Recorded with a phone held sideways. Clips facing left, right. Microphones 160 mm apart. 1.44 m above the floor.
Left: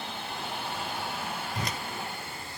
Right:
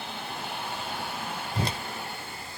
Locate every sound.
1.6 s a whoosh: 30° right (ahead or behind)